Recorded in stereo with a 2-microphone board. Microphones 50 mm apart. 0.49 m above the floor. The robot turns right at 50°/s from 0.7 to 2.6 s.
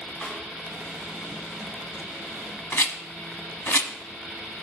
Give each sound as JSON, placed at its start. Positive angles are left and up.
{"t": 0.2, "sound": "a snare drum", "side_deg": 15, "distance_m": 5.0}
{"t": 2.7, "sound": "a rattle", "side_deg": 60, "distance_m": 0.9}